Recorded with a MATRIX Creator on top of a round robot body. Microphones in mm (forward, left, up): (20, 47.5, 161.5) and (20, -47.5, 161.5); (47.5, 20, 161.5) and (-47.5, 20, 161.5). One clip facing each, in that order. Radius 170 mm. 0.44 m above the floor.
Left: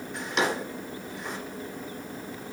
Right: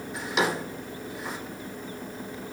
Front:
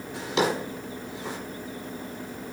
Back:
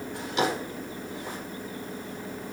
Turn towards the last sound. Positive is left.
turn(degrees=0)